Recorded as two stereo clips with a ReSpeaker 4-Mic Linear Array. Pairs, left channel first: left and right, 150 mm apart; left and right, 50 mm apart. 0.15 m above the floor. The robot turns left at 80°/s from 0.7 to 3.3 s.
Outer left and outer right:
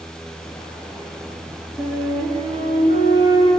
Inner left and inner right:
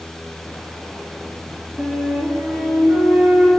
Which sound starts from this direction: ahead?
A flute, at 1.8 s.